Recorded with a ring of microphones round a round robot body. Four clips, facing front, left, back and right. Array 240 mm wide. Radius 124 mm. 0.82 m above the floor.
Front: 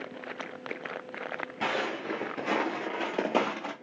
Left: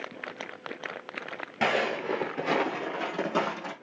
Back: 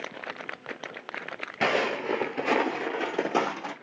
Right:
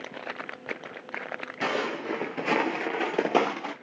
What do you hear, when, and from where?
1.6 s footsteps: 145° left, 0.9 m; by 3.7 s 75° right, 1.1 m